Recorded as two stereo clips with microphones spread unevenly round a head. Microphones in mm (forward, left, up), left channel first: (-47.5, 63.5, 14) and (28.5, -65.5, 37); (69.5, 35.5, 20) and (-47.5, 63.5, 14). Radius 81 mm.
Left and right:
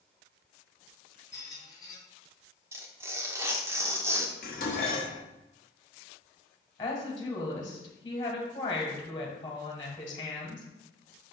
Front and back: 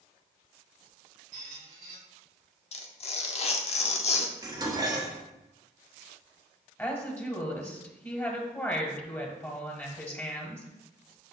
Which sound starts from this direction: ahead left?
A woman speaking, at 6.8 s.